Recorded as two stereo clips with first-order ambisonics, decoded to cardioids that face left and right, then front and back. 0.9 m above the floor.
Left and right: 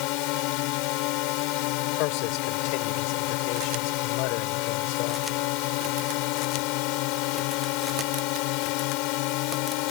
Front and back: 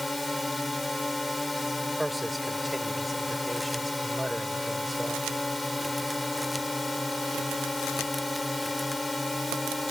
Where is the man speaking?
95° left.